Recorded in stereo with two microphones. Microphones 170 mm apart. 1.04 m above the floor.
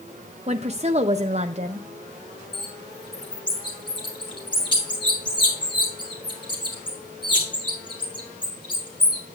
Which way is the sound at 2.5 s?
25° left (ahead or behind).